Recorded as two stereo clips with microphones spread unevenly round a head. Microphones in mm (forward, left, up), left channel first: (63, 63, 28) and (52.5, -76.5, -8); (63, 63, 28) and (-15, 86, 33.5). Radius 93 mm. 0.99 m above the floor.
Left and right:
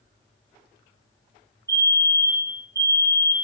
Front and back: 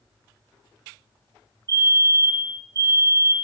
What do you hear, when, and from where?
1.7 s a fire alarm: 150° right, 2.5 m